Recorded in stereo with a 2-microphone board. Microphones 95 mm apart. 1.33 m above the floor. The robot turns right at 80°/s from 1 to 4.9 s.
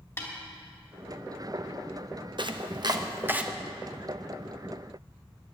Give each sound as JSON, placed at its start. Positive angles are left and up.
{"t": 0.2, "sound": "a snare drum", "side_deg": 30, "distance_m": 2.5}
{"t": 2.4, "sound": "chopping", "side_deg": -55, "distance_m": 0.7}